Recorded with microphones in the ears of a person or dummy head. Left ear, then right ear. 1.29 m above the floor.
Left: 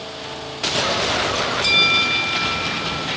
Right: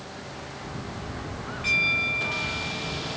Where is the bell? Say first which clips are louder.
Left 6 dB; 50° left (ahead or behind), 1.5 m.